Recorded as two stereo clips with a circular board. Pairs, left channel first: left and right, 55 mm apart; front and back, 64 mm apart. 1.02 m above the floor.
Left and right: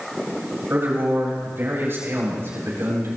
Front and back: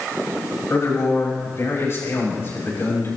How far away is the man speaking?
About 6 m.